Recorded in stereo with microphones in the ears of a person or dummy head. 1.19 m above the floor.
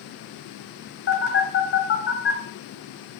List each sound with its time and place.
1.1 s a phone buzzing: 60° left (ahead or behind), 1.5 m